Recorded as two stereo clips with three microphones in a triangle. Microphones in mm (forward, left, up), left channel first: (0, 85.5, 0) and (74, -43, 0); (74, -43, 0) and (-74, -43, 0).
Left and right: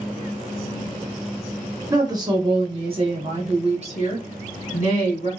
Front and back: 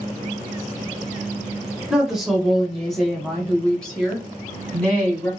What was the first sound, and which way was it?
A woman speaking, 100° right.